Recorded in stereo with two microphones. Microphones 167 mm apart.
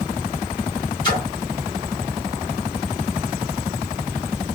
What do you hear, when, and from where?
1.0 s a splash: 30° left (ahead or behind), 2.0 m